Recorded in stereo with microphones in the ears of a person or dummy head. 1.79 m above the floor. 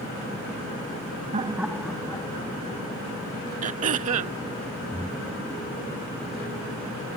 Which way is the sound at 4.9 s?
Centre (ahead or behind).